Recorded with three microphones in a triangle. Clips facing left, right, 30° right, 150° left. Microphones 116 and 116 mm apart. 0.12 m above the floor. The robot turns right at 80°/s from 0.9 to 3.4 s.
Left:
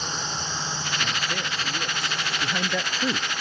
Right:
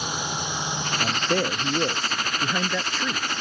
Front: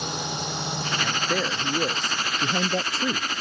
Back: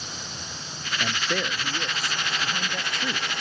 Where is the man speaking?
140° right; by 3.3 s 45° left.